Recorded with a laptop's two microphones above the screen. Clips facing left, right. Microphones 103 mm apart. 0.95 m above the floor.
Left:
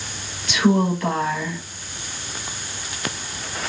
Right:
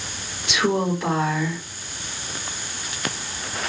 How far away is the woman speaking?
About 4 m.